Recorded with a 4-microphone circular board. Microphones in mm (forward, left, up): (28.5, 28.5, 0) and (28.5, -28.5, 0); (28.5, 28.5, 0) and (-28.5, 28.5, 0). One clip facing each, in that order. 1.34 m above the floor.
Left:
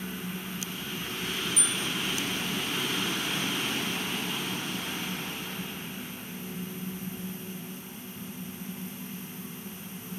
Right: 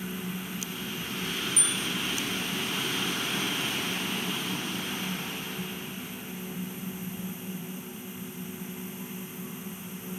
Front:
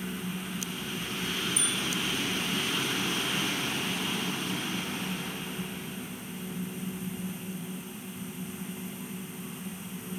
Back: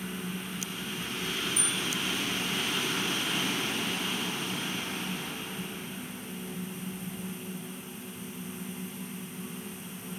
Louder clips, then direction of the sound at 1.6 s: Even, front 1 dB; 150° right.